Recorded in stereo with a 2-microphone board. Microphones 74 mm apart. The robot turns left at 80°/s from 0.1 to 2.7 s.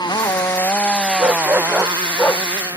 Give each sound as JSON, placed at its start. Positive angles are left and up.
{"t": 0.0, "sound": "a motorcycle", "azimuth_deg": 80}
{"t": 1.2, "sound": "a dog barking", "azimuth_deg": -125}